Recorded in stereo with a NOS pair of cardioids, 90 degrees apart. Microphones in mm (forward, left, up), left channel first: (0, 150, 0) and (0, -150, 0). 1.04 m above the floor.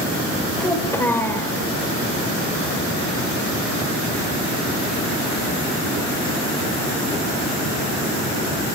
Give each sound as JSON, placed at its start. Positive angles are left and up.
{"t": 0.6, "sound": "a child speaking", "azimuth_deg": 10, "distance_m": 3.5}